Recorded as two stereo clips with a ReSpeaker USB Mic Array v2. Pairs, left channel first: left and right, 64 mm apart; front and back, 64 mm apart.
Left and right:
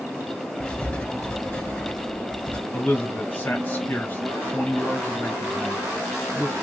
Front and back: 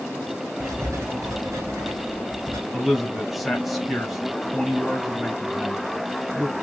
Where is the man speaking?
90° left, 1.2 m.